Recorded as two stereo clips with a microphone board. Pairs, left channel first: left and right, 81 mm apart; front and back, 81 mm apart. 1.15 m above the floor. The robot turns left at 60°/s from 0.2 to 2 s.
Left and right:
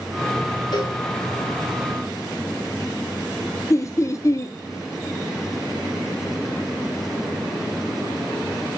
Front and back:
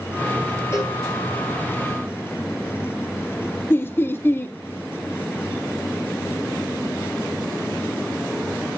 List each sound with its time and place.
0.7 s a cowbell: 55° left, 4 m; by 1.0 s 40° left, 4 m
3.7 s laughter: 55° left, 0.9 m